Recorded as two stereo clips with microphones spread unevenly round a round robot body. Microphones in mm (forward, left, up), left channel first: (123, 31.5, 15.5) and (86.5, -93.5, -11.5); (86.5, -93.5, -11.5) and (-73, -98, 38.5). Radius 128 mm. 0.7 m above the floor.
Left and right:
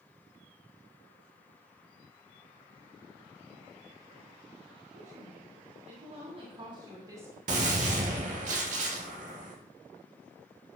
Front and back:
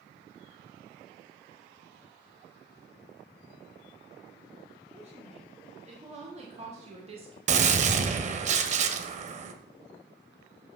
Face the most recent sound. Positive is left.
turn(degrees=-160)